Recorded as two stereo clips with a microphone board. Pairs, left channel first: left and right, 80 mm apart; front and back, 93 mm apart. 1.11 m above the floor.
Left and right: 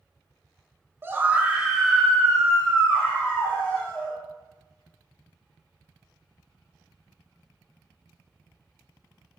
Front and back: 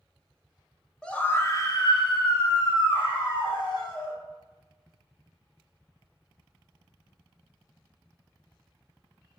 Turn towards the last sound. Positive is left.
turn(degrees=20)